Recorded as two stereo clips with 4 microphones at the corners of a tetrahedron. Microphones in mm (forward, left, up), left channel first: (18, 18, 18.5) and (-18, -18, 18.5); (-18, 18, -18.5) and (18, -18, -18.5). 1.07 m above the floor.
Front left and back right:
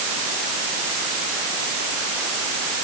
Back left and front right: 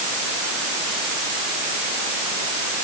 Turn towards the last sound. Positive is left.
No sound to turn to.